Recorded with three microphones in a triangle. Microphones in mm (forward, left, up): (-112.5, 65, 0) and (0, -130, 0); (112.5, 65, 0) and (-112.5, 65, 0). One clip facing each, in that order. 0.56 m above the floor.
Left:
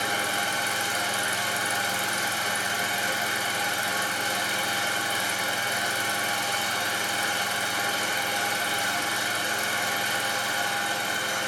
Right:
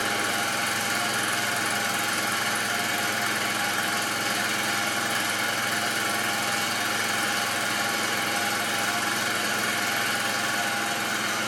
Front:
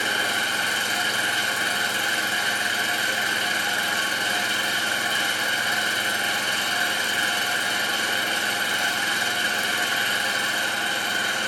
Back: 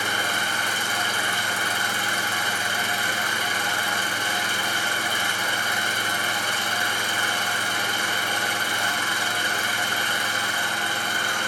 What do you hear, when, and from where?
0.0 s an engine running: 70° right, 5 m